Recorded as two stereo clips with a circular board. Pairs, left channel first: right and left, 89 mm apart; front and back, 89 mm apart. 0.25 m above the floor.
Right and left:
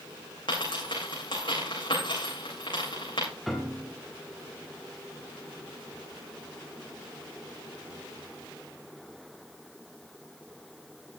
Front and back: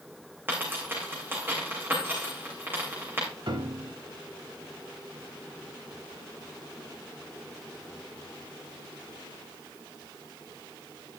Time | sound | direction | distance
0.5 | a dropped coin | 115° right | 5.5 m
3.5 | a piano | straight behind | 1.4 m